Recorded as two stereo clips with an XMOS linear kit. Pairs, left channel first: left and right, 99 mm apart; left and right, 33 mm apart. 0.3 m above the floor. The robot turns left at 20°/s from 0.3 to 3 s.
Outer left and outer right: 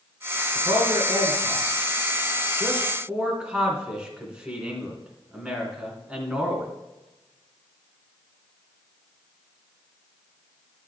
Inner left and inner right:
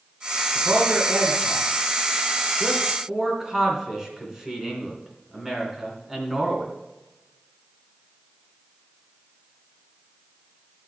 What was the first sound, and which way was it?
A man speaking, 55° right (ahead or behind).